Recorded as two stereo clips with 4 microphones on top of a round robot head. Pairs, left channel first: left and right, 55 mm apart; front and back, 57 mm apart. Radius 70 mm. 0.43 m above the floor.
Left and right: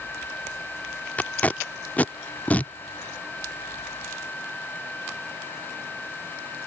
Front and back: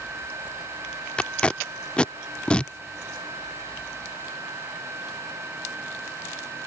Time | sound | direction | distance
1.2 | tape being pulled | 55° left | ?